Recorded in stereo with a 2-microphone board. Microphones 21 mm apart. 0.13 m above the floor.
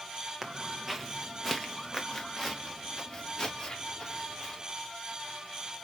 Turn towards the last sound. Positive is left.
turn(degrees=35)  # may be behind; listen again after turning